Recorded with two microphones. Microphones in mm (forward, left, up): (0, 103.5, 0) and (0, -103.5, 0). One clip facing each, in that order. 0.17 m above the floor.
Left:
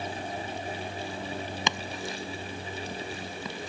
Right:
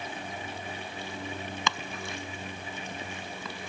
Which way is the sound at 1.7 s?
20° left (ahead or behind).